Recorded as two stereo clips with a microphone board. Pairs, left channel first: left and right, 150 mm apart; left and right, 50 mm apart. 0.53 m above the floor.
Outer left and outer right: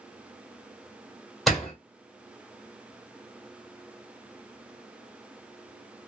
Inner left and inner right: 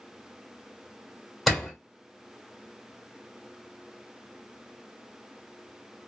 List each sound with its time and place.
1.5 s a door slam: centre (ahead or behind), 1.6 m